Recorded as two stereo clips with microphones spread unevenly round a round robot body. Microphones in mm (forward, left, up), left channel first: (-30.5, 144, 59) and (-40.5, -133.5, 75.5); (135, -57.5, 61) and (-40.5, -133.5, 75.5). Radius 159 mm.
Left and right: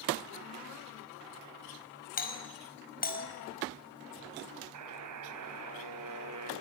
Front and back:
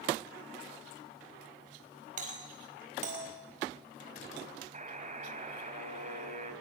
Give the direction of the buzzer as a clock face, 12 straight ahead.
4 o'clock.